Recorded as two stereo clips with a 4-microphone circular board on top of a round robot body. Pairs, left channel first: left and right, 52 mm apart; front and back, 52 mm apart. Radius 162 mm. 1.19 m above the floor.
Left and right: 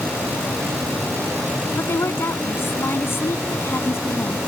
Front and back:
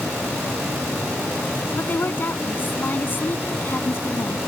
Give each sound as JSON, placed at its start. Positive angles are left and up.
{"t": 1.8, "sound": "a woman speaking", "azimuth_deg": 50}